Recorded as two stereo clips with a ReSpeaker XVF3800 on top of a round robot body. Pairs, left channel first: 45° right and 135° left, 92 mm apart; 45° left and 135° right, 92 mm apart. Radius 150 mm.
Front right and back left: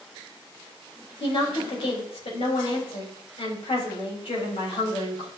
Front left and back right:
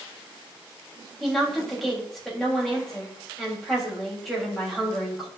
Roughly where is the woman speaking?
Ahead right.